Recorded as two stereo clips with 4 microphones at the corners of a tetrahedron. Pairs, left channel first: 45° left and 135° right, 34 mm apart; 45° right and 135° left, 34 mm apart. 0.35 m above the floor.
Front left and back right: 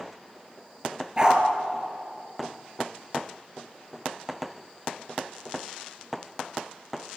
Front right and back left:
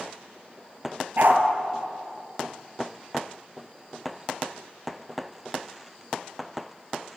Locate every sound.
1.2 s a dog barking: 160° left, 2.5 m